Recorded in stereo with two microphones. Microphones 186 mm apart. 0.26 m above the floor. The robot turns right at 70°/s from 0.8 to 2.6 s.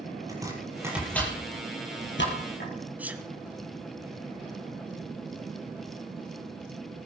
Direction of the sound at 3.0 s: 10° right (ahead or behind).